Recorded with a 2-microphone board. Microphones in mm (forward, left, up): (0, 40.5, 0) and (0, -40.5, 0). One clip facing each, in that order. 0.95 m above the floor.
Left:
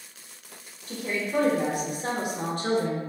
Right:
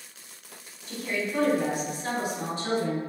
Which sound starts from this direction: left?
A woman speaking, at 0.9 s.